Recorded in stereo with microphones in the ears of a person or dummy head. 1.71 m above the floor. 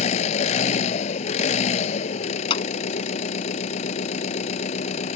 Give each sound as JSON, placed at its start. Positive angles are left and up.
{"t": 0.0, "sound": "an engine running", "side_deg": 35}
{"t": 2.5, "sound": "a clap", "side_deg": 25}